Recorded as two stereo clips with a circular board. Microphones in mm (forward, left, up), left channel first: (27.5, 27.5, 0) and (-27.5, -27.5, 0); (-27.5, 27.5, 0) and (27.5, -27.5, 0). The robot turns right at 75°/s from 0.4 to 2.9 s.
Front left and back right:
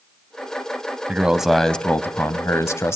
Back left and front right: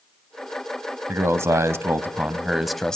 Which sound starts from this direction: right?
A man speaking, at 1.1 s.